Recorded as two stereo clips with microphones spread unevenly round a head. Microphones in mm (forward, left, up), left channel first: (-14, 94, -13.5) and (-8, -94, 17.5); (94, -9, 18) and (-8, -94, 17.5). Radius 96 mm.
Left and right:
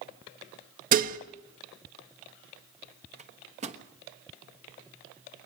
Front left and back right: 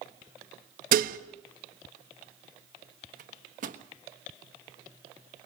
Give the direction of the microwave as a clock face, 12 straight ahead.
5 o'clock.